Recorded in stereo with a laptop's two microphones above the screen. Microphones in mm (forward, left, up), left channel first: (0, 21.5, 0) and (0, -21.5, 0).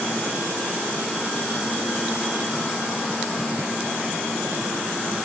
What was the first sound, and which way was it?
Only background noise.